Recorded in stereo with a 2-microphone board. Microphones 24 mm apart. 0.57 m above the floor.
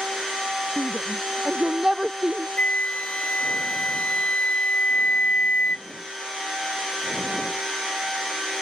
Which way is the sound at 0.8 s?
25° right (ahead or behind).